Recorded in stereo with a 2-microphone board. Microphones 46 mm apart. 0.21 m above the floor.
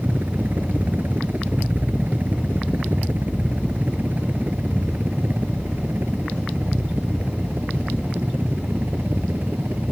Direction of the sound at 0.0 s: 40° right (ahead or behind).